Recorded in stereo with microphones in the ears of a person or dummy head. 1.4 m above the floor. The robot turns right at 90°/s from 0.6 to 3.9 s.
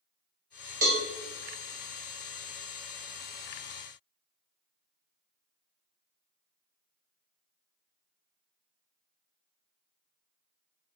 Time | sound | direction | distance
0.8 | a cowbell | 50° right (ahead or behind) | 0.7 m